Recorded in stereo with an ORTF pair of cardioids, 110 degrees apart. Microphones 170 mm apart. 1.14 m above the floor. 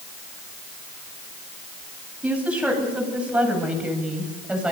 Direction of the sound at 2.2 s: 10° right.